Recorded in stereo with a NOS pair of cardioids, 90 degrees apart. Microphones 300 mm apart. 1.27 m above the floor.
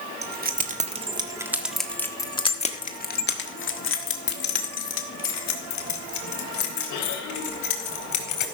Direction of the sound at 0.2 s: 35° right.